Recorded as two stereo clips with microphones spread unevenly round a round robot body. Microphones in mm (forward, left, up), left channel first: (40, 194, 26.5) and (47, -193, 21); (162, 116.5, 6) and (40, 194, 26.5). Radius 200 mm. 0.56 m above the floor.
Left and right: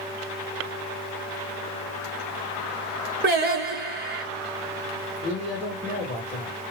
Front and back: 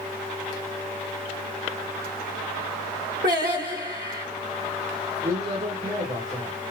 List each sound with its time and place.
3.2 s singing: 155° right, 0.8 m
5.2 s a man speaking: 175° left, 1.8 m